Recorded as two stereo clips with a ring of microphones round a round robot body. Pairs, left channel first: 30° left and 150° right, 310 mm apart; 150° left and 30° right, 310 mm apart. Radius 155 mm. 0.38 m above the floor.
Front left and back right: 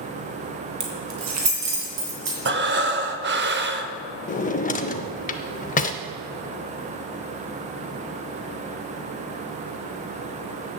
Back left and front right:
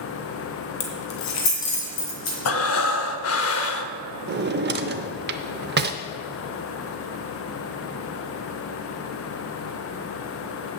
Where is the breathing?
170° left, 0.6 m.